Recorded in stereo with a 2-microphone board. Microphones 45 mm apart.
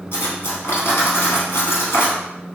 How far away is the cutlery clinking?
About 1.9 m.